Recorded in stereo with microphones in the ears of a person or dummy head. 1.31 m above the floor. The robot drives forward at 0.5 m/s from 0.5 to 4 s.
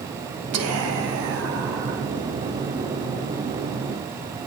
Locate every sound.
0.5 s whispering: 80° right, 1.2 m; by 2.0 s 65° right (ahead or behind), 1.3 m